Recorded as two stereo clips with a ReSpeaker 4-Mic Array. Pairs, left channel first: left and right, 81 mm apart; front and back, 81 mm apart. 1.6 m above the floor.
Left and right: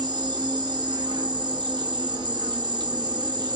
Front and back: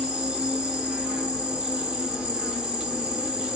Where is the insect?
100° right, 0.8 m.